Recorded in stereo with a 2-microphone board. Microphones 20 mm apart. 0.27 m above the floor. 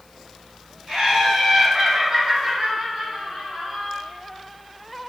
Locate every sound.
0.9 s laughter: 40° right (ahead or behind), 2.0 m; by 4.0 s 20° right (ahead or behind), 1.9 m